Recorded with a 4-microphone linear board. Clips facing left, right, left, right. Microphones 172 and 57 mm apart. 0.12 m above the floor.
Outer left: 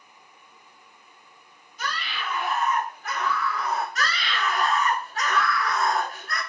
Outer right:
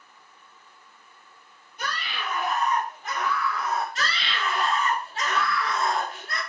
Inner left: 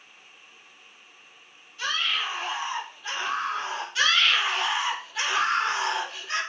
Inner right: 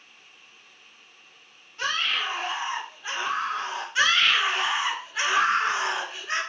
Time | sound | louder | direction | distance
1.8 | a scream | even, inner right 1 dB | 60° right (ahead or behind) | 2.5 m
4.0 | a scream | outer left 2 dB, inner right 1 dB | 30° right (ahead or behind) | 1.7 m